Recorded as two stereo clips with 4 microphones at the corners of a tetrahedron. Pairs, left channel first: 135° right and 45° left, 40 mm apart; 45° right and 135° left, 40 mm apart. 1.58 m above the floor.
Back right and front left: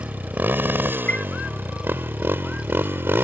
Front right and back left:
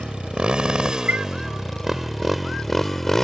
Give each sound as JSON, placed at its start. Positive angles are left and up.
{"t": 0.0, "sound": "a motorcycle", "azimuth_deg": 75}
{"t": 1.1, "sound": "a chime", "azimuth_deg": 175}